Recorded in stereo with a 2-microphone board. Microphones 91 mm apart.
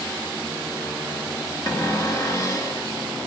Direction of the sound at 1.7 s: 35° left (ahead or behind).